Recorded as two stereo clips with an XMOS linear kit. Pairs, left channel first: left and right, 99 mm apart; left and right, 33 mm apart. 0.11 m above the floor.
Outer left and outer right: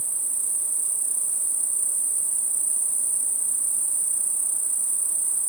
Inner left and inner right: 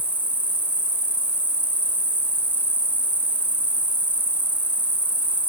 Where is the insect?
55° left (ahead or behind), 5 m.